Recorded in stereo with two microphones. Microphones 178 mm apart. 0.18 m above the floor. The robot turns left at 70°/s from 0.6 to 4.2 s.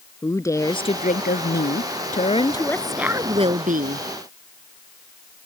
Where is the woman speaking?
160° left; by 4.0 s 80° right.